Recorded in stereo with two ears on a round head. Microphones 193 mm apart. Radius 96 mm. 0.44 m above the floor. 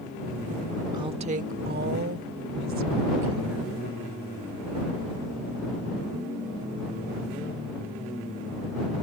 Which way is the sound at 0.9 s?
20° right (ahead or behind).